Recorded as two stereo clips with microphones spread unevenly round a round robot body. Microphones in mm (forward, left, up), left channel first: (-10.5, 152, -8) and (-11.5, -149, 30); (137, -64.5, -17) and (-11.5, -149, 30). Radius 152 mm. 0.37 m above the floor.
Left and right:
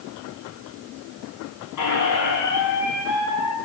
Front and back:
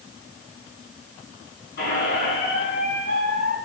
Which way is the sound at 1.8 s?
65° left.